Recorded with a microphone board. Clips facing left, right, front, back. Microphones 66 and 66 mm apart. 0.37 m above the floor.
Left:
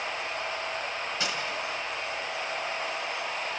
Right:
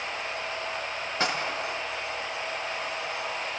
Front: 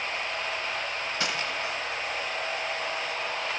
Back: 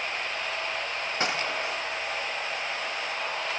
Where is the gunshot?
130° right, 1.2 m.